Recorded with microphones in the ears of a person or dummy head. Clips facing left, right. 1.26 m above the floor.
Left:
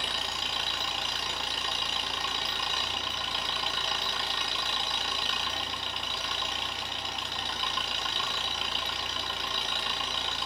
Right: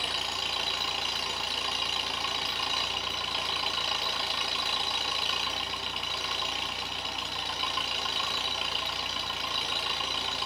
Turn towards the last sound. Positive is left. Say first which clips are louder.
# right 1 dB
turn(degrees=0)  # may be behind; listen again after turning